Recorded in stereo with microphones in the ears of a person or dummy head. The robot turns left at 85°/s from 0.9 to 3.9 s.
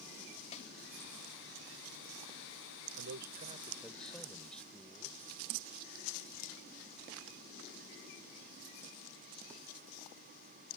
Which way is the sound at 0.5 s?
35° left (ahead or behind).